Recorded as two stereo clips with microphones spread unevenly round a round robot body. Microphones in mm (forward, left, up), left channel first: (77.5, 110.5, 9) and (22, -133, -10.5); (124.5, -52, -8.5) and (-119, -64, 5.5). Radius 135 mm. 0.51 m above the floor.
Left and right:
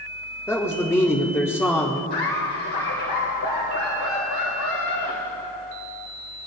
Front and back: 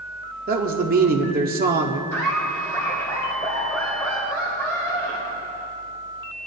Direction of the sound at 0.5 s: 160° left.